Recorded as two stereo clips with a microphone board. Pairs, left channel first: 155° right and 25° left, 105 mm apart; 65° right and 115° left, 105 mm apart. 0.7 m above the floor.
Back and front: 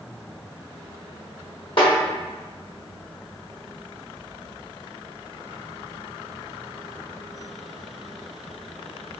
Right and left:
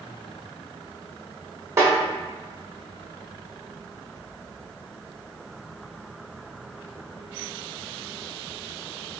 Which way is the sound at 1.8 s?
170° left.